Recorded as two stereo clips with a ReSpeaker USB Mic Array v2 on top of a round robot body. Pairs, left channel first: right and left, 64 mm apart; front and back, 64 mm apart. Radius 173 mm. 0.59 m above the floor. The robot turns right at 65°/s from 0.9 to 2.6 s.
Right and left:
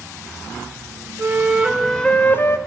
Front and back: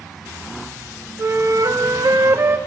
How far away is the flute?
About 2 m.